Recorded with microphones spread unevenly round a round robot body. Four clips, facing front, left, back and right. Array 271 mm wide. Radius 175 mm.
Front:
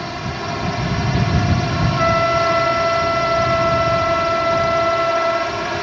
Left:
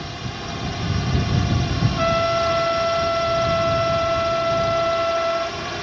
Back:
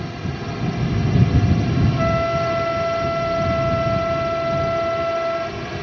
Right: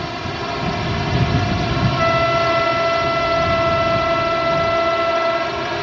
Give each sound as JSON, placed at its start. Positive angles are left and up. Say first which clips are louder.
{"t": 0.0, "sound": "a drone", "louder": "right 7 dB, front 3 dB", "azimuth_deg": -85}
{"t": 2.0, "sound": "a trumpet", "louder": "right 2 dB, front 6 dB", "azimuth_deg": -155}